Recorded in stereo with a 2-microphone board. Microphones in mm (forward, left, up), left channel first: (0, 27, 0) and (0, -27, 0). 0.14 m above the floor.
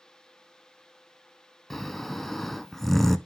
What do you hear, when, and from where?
1.7 s snoring: 5° left (ahead or behind), 0.5 m